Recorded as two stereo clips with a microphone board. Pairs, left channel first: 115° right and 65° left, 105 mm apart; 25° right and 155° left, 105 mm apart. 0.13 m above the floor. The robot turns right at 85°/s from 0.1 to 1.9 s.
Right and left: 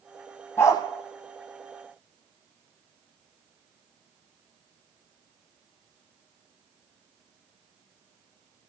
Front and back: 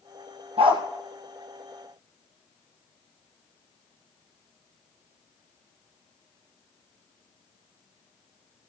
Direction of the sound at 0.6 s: Straight behind.